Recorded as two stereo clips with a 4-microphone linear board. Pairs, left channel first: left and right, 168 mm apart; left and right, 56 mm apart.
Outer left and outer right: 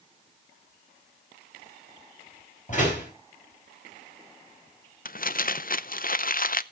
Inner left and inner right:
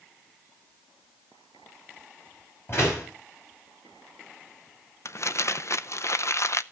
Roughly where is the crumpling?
Left.